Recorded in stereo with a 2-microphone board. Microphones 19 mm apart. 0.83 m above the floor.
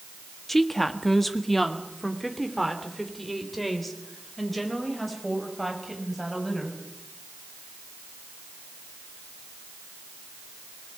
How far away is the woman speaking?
About 1.1 m.